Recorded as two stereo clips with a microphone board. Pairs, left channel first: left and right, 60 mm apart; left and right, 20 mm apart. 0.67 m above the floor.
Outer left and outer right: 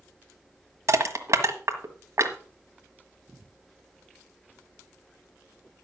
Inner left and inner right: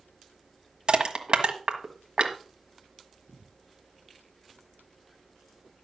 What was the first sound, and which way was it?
Crushing, 50° right (ahead or behind).